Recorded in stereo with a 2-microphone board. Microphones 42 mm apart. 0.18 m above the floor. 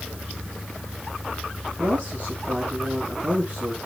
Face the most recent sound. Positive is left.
turn(degrees=-40)  # may be behind; listen again after turning